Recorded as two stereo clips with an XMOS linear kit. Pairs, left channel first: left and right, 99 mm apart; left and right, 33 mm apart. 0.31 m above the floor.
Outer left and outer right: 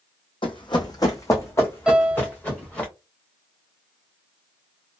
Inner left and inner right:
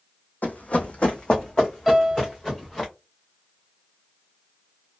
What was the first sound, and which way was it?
Running footsteps, 60° left (ahead or behind).